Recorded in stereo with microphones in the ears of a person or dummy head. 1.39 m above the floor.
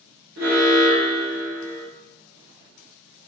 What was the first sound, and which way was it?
An alarm, 75° right (ahead or behind).